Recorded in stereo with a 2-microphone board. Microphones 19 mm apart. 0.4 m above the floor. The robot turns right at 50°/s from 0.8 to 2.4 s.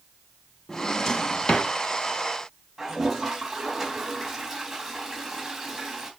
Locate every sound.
0.7 s a drawer: 20° left (ahead or behind), 1.2 m; by 1.7 s 65° left (ahead or behind), 1.2 m
2.8 s a toilet flushing: 10° right (ahead or behind), 3 m